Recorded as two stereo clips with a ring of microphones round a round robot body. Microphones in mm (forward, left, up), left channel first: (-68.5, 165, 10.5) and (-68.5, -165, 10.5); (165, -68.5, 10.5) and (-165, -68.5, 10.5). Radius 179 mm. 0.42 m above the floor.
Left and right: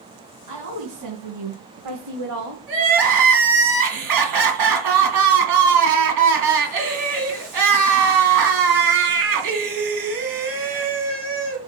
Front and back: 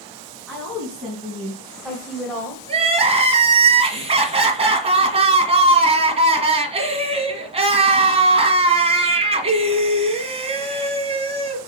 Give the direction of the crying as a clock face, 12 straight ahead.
4 o'clock.